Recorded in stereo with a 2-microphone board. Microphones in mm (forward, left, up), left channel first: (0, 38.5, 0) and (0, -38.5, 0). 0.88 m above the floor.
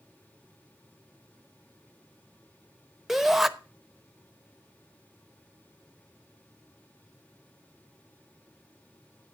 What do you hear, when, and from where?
3.1 s a shout: 5° right (ahead or behind), 0.8 m